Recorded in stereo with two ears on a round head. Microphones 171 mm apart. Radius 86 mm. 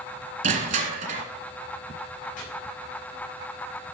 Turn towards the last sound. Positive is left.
turn(degrees=45)  # may be behind; listen again after turning